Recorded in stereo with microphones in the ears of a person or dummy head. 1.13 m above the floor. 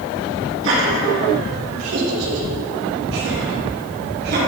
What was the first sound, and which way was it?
Laughter, 70° right (ahead or behind).